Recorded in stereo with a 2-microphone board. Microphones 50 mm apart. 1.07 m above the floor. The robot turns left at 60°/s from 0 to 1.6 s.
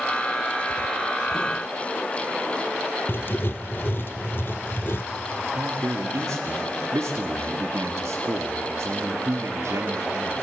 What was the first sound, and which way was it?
Writing, 45° left (ahead or behind).